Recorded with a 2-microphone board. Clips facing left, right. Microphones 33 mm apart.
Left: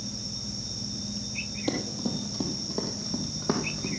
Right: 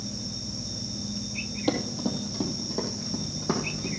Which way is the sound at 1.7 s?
15° right (ahead or behind).